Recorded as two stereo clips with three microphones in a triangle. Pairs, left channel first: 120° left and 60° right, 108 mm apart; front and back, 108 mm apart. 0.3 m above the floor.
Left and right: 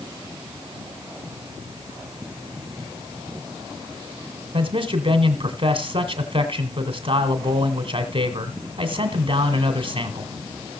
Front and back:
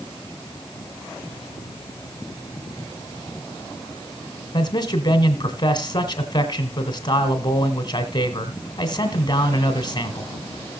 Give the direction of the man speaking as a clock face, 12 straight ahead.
1 o'clock.